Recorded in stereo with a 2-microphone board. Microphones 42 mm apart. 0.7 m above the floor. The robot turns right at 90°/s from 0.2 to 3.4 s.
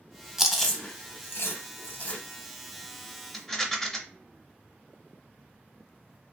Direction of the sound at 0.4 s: 15° right (ahead or behind).